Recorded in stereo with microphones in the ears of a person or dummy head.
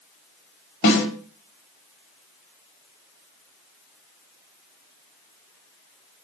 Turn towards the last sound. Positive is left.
turn(degrees=60)  # may be behind; listen again after turning